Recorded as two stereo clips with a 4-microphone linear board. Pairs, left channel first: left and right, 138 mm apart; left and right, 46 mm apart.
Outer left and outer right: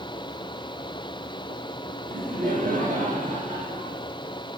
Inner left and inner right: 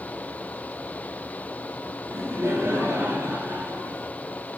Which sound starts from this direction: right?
Laughter, at 2.1 s.